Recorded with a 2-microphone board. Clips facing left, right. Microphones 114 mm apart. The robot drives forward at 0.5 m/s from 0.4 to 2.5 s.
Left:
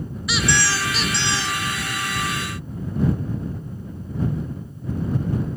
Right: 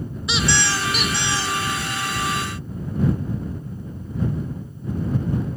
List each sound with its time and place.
0.3 s a squeak: 25° right (ahead or behind), 0.6 m; by 1.6 s 10° right (ahead or behind), 1.1 m